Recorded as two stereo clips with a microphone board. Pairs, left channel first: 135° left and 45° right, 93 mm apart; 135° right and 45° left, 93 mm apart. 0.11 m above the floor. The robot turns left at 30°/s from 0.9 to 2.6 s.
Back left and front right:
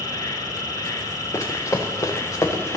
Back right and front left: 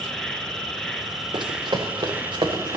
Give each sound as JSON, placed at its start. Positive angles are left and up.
{"t": 0.0, "sound": "an insect", "azimuth_deg": 140, "distance_m": 0.8}
{"t": 1.3, "sound": "running footsteps", "azimuth_deg": 75, "distance_m": 0.9}